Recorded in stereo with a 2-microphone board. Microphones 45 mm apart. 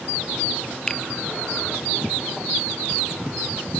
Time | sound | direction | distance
0.9 | a finger snap | 20° left (ahead or behind) | 0.9 m